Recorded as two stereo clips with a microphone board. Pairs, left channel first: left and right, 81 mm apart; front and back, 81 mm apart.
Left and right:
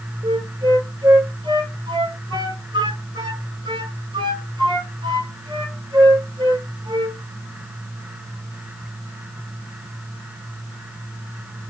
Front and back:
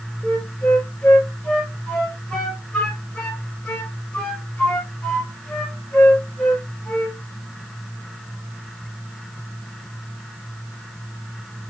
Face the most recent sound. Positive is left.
turn(degrees=-80)